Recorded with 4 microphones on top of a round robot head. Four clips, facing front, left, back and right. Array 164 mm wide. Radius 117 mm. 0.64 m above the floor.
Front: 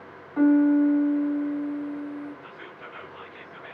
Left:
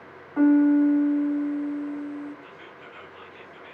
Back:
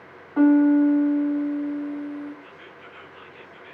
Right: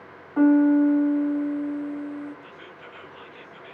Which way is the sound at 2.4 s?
10° right.